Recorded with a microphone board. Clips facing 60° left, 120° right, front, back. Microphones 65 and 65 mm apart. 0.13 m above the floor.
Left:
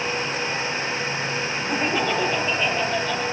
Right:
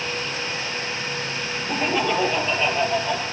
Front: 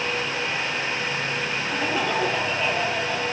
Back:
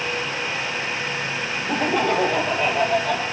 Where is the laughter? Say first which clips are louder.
Right 1 dB, back 5 dB; 145° left, 3 m; by 3.2 s 165° left, 4 m.